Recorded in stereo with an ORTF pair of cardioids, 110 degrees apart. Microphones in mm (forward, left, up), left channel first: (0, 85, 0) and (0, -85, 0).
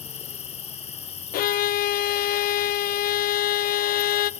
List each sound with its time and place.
0.0 s an insect: 40° left, 1.5 m
1.3 s a violin: 60° left, 0.7 m